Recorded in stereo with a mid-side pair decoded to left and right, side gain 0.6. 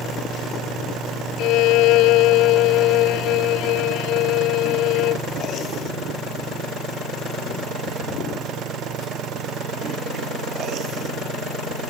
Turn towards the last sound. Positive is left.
turn(degrees=70)